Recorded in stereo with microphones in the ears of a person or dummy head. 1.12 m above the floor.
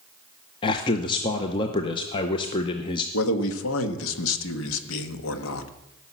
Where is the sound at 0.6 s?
30° left (ahead or behind), 0.7 m.